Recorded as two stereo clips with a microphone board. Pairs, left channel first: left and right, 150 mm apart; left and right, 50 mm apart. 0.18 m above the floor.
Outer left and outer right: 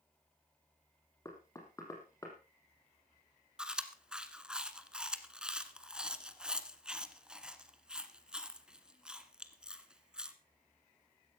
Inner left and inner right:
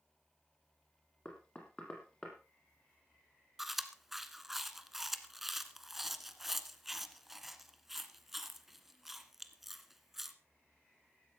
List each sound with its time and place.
1.2 s knocking: 20° left (ahead or behind), 4 m
3.6 s chewing: 5° right (ahead or behind), 1.2 m